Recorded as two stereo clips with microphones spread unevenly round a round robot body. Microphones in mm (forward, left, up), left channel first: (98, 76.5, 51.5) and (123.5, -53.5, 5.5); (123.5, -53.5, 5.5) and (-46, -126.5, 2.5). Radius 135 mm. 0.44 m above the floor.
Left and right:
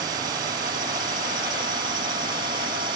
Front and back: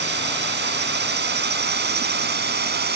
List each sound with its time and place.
0.0 s a drone: 140° right; by 3.0 s 135° right